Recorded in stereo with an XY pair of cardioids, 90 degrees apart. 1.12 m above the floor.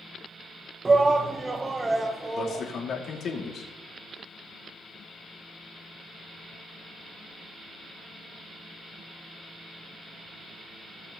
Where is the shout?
30° right, 0.6 m; by 2.7 s 20° right, 1.6 m.